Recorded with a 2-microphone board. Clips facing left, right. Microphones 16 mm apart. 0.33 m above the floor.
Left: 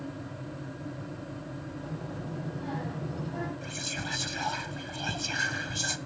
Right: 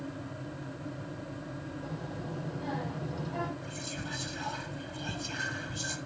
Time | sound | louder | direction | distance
1.8 | a child speaking | left 1 dB | 15° right (ahead or behind) | 10 m
3.6 | whispering | left 4 dB | 60° left (ahead or behind) | 1.5 m